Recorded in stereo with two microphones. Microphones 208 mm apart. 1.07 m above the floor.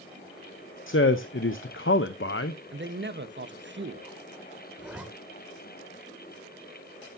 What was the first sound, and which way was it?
A man speaking, 70° left (ahead or behind).